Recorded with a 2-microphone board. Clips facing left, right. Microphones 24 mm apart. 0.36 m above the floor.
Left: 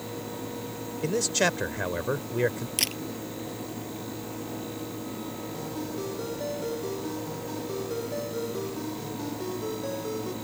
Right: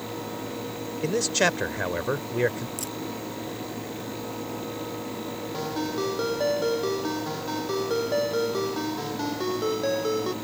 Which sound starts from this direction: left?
A camera shutter, at 2.8 s.